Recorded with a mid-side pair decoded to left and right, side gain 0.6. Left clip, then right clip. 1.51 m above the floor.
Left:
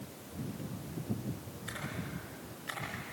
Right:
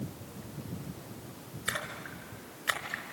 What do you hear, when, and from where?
1.7 s a splash: 55° right, 4.5 m